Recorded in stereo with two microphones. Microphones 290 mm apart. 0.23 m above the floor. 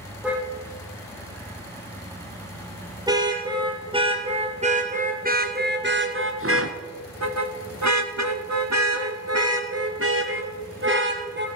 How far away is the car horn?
About 4.5 m.